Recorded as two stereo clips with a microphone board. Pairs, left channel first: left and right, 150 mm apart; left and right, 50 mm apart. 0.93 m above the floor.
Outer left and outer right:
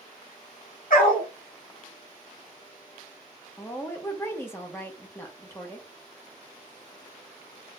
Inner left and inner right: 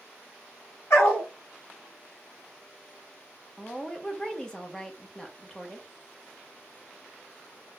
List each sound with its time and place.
0.9 s a dog barking: 70° left (ahead or behind), 2 m
3.6 s a woman speaking: 15° left (ahead or behind), 0.8 m